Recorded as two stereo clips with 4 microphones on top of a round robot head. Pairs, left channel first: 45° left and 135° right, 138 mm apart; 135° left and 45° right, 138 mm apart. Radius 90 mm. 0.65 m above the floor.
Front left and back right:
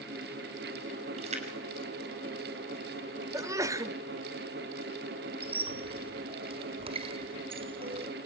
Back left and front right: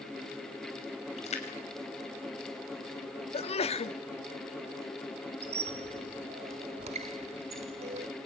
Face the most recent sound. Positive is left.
turn(degrees=-90)